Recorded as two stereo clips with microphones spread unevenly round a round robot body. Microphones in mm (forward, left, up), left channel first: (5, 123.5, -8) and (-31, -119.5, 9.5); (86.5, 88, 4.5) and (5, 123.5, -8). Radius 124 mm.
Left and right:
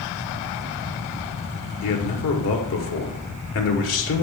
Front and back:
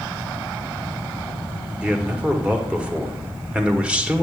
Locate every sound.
1.8 s a man speaking: 85° left, 1.3 m